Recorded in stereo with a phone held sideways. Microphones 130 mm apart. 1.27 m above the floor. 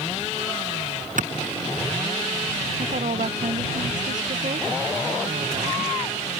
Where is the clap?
85° right.